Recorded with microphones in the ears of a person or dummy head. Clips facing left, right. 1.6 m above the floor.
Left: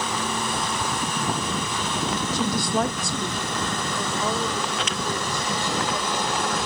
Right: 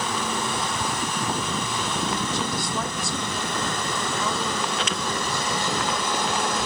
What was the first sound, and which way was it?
A woman speaking, 65° left (ahead or behind).